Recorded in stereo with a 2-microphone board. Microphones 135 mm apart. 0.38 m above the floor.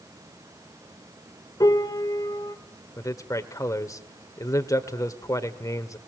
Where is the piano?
30° left (ahead or behind), 1.3 m.